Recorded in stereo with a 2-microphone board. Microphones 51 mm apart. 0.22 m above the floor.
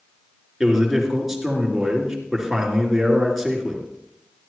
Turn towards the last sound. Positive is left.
turn(degrees=-5)  # may be behind; listen again after turning